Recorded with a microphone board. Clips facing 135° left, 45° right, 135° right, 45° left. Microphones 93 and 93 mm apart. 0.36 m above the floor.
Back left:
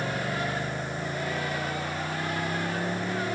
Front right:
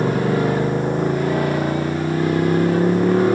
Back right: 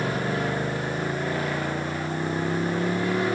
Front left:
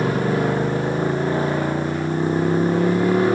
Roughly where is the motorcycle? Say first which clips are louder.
Front right 12 dB, front left 6 dB; ahead.